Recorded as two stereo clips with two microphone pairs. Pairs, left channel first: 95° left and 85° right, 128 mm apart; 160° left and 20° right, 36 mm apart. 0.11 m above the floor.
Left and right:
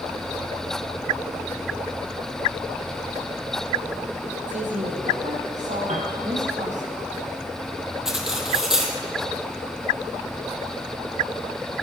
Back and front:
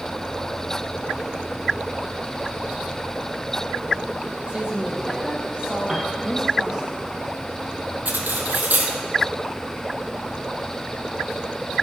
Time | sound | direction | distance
4.5 | a woman speaking | 75° right | 3 m
5.9 | a piano | 95° right | 2.5 m
8.1 | cutlery clinking | straight ahead | 2.5 m